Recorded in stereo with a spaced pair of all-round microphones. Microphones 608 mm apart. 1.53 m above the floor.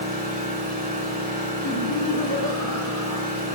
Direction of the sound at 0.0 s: 15° right (ahead or behind).